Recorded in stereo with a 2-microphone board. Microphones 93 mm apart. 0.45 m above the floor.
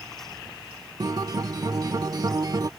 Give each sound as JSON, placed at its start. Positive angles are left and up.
{"t": 1.0, "sound": "a guitar", "side_deg": -45}